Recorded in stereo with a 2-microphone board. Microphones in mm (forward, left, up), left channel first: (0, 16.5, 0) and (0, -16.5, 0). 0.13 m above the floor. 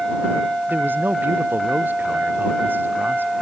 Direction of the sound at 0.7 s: 75° right (ahead or behind).